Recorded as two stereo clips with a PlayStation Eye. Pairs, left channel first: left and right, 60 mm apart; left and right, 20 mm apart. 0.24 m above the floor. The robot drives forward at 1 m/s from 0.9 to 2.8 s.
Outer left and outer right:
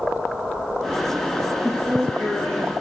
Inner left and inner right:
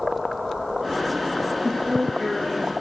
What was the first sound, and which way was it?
A woman speaking, 45° left (ahead or behind).